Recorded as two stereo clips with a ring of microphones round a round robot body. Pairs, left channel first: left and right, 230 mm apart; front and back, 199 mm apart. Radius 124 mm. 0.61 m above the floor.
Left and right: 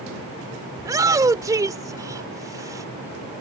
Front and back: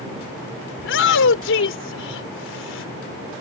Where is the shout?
15° right.